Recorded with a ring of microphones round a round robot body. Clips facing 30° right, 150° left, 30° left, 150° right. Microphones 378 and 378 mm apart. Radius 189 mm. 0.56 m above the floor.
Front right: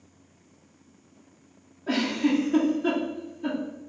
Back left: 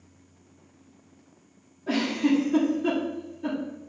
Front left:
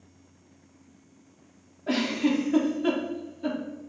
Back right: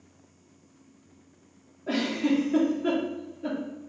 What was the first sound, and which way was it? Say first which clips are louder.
A giggle: back left 1 dB, even; 60° left.